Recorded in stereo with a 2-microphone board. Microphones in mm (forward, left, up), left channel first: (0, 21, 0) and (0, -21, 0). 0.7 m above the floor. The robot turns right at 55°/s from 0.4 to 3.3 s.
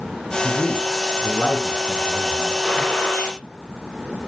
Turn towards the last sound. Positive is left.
turn(degrees=60)